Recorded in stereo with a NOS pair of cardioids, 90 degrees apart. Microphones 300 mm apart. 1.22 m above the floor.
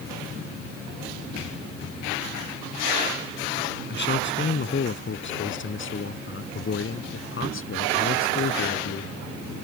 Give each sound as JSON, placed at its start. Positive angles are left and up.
{"t": 3.9, "sound": "a man speaking", "azimuth_deg": 35}